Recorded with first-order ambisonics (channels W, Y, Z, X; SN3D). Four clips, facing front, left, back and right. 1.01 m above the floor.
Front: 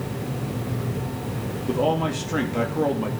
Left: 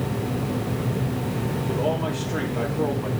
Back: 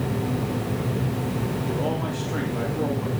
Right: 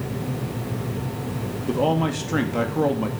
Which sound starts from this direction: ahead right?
A man speaking, at 1.7 s.